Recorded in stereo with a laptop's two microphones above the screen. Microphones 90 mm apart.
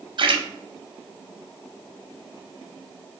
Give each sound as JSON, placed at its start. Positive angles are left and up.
{"t": 0.2, "sound": "a splash", "side_deg": -65, "distance_m": 0.6}